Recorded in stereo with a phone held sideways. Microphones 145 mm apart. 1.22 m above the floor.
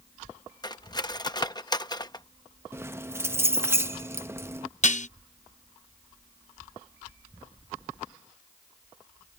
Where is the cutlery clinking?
30° left (ahead or behind).